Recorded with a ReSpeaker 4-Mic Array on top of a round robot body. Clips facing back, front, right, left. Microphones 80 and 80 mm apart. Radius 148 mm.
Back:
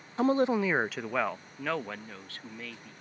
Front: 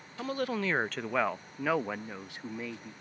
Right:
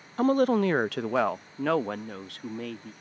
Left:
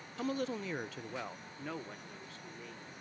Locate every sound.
0.2 s a woman speaking: 130° right; by 2.9 s 70° right